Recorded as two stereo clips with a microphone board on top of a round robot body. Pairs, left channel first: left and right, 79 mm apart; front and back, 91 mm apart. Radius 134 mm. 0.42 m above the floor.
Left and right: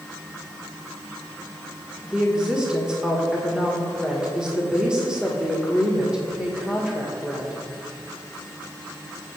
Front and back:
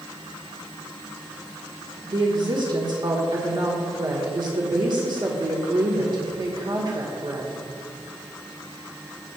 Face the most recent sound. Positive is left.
turn(degrees=-165)